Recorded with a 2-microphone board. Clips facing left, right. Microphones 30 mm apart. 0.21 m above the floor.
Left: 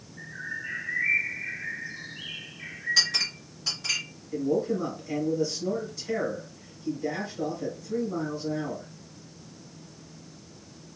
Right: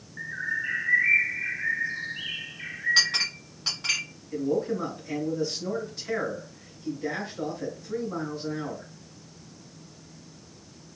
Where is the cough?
I don't hear a cough.